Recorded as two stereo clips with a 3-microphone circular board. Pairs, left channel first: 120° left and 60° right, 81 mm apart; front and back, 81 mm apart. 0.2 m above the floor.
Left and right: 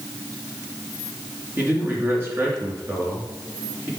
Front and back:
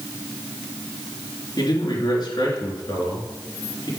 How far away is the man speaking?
About 3 m.